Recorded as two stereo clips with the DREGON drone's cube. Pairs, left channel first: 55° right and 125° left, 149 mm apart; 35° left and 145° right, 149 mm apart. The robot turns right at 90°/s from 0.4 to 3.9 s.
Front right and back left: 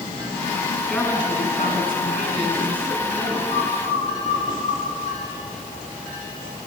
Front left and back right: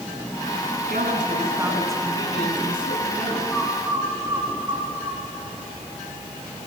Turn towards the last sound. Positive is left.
turn(degrees=145)